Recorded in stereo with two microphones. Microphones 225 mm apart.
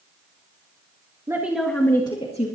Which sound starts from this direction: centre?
A woman speaking, at 1.3 s.